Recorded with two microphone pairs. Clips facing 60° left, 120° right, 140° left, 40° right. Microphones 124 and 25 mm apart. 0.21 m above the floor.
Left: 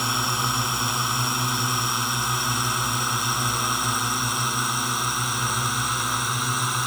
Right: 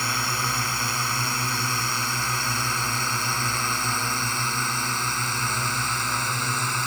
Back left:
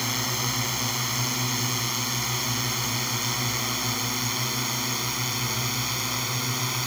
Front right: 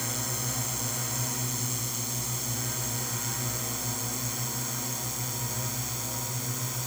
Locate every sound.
0.0 s a drone: 125° left; by 6.9 s 135° left